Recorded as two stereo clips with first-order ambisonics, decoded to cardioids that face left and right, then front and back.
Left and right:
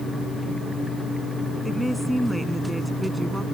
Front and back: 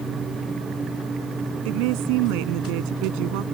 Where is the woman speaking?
Straight behind; by 3.4 s 175° right.